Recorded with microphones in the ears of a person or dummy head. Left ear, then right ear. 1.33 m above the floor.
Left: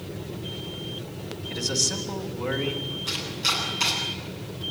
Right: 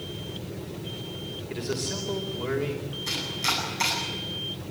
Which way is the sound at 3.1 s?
70° right (ahead or behind).